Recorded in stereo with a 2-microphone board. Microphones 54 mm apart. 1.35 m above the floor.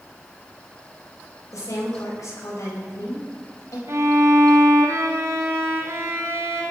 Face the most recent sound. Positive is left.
turn(degrees=-80)